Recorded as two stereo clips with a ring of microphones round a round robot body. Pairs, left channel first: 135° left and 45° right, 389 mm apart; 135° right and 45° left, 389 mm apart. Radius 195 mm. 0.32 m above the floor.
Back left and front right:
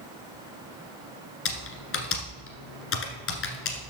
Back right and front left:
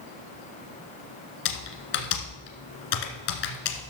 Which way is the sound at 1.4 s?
165° right.